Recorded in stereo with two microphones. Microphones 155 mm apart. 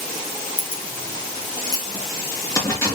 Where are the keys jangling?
35° left (ahead or behind), 2.0 m; by 2.9 s 15° left (ahead or behind), 4 m.